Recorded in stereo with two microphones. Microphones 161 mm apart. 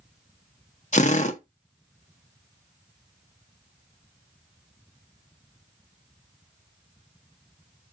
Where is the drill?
50° left (ahead or behind), 0.6 m.